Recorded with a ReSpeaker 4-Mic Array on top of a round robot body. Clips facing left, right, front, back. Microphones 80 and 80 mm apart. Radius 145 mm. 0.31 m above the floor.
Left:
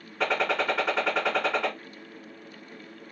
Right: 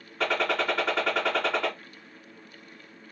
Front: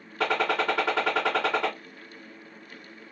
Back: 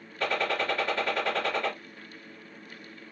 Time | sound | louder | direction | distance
0.2 | a gunshot | even, front 3 dB | straight ahead | 2.5 m